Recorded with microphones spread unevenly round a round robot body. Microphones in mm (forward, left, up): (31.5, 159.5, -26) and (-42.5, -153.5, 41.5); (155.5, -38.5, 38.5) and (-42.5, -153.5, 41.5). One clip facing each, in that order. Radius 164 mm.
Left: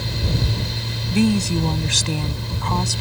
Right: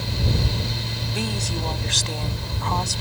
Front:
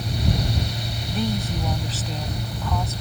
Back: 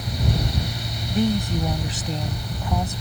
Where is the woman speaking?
130° left.